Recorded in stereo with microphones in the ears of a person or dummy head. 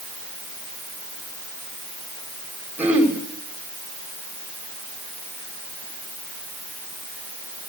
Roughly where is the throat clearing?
Centre.